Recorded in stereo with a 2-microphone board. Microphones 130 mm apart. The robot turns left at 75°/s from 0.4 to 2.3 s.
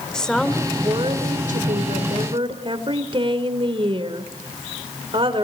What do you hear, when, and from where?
0.1 s a woman speaking: 5° left, 3 m; by 5.5 s 140° right, 3 m